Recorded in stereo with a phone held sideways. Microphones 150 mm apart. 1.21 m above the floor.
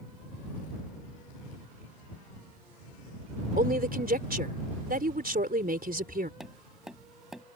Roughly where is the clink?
No clink in this recording.